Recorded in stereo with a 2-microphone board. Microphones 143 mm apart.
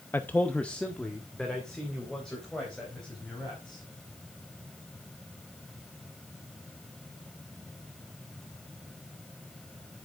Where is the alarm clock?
I don't hear an alarm clock.